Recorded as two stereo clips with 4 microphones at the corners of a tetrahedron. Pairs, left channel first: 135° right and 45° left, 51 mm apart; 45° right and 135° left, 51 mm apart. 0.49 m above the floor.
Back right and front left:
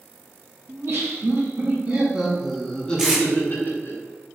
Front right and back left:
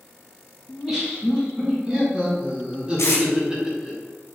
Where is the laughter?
70° left, 1.5 m; by 4.0 s 150° right, 1.3 m.